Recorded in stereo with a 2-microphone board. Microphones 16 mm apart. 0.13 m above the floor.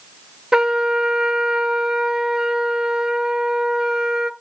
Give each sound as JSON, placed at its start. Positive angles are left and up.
{"t": 0.5, "sound": "a trumpet", "side_deg": -45, "distance_m": 0.7}